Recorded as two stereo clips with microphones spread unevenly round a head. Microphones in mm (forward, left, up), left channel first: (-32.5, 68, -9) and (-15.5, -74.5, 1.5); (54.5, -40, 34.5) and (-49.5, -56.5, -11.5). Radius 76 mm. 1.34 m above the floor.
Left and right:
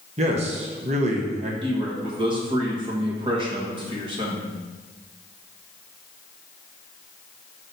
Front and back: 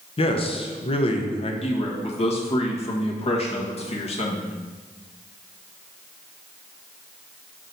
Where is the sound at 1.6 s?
20° right, 1.6 m.